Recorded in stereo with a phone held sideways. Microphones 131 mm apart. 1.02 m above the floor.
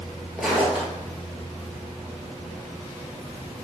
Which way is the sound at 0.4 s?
Centre (ahead or behind).